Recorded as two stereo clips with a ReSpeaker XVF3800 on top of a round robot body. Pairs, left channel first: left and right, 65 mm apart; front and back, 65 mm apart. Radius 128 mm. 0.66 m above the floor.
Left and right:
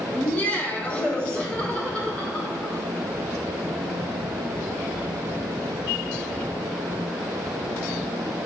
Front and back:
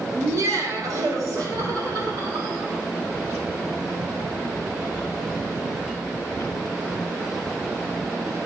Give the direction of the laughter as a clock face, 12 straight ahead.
7 o'clock.